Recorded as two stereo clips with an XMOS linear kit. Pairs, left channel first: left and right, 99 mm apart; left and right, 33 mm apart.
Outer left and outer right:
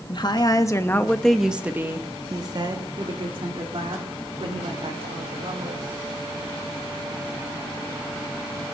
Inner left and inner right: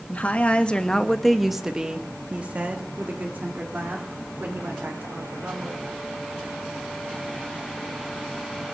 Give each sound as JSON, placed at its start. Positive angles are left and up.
{"t": 0.1, "sound": "a woman speaking", "side_deg": 50, "distance_m": 1.2}